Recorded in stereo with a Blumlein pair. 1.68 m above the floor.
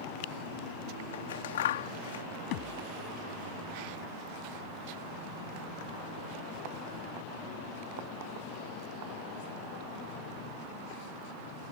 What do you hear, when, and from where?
1.1 s scissors: 60° left
2.5 s a thud: 45° left